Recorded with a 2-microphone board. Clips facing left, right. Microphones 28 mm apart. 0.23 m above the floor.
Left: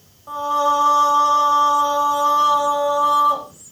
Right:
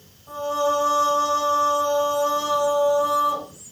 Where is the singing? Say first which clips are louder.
Left 4 dB; 40° left (ahead or behind), 1.8 m.